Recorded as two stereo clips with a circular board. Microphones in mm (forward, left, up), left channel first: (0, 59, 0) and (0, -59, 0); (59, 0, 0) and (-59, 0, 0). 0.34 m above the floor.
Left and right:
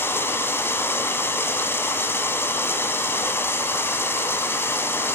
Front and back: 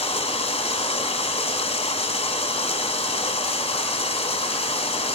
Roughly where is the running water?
Ahead.